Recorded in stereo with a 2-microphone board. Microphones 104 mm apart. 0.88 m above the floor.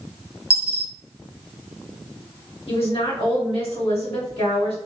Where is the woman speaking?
70° left (ahead or behind), 1.7 m.